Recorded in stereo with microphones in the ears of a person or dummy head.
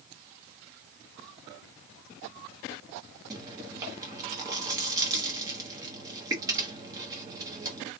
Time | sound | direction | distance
3.3 | chewing | 15° right (ahead or behind) | 0.8 m